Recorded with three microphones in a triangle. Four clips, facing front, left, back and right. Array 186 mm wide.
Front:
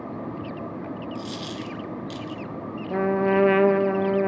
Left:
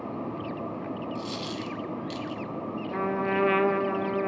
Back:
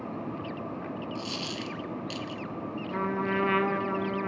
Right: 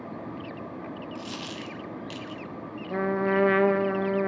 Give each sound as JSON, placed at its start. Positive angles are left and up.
{"t": 1.1, "sound": "a dropped coin", "azimuth_deg": -100, "distance_m": 0.8}
{"t": 2.9, "sound": "a trumpet", "azimuth_deg": -5, "distance_m": 0.7}